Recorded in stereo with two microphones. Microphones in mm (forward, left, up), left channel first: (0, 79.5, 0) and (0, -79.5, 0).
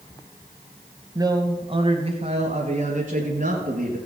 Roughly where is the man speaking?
Right.